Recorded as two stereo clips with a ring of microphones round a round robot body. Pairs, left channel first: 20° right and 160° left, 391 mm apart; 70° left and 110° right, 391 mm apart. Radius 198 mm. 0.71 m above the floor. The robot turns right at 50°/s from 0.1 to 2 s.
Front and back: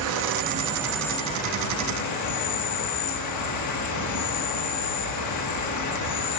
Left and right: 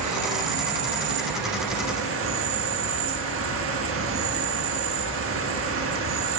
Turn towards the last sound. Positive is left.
turn(degrees=-60)